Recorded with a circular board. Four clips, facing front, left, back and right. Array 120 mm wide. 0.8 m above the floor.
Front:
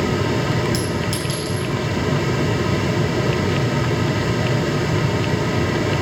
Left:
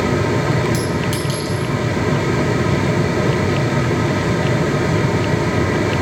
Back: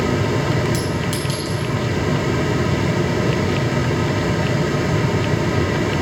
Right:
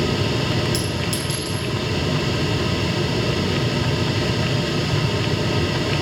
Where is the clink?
135° left, 4 m.